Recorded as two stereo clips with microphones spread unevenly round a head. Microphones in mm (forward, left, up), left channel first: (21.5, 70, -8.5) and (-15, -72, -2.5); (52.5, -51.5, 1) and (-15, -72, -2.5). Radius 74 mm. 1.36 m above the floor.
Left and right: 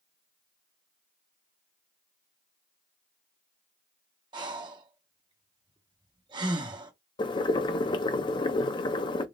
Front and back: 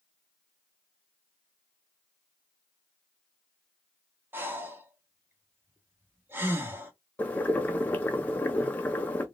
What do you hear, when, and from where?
4.3 s breathing: 130° right, 0.9 m
7.2 s boiling: 55° left, 0.5 m